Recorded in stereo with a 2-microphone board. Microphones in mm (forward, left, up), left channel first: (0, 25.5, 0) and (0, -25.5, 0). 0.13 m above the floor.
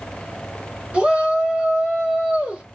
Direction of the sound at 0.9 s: 25° right (ahead or behind).